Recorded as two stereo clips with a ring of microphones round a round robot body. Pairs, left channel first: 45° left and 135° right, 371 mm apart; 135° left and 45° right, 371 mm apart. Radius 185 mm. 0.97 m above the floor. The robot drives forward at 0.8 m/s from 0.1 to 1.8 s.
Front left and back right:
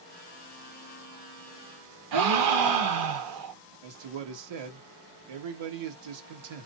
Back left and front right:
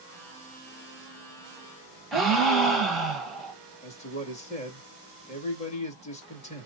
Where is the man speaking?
150° right, 1.3 m.